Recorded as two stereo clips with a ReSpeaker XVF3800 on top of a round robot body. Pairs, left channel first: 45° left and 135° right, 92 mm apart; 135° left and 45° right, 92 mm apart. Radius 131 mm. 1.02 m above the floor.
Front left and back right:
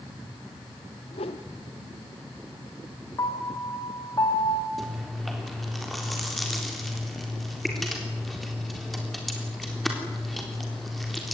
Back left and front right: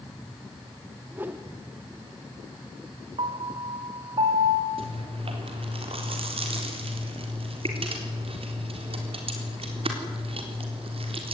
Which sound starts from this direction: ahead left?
A whoosh, at 1.1 s.